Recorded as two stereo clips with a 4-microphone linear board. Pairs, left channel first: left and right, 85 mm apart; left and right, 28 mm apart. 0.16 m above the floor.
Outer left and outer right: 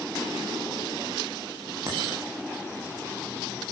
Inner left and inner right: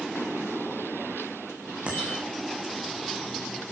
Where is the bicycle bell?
40° right (ahead or behind), 9 m.